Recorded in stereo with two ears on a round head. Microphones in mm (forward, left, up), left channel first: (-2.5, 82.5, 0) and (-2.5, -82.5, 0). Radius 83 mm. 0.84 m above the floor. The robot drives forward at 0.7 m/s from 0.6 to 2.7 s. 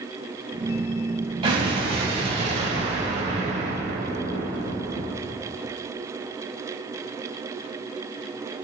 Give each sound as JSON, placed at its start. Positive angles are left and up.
{"t": 1.4, "sound": "an explosion", "side_deg": -30, "distance_m": 3.5}